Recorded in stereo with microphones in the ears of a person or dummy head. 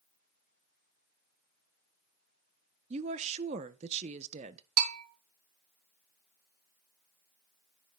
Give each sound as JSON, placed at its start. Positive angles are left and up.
{"t": 2.9, "sound": "a woman speaking", "side_deg": -40, "distance_m": 1.0}
{"t": 4.8, "sound": "a bell", "side_deg": -50, "distance_m": 2.0}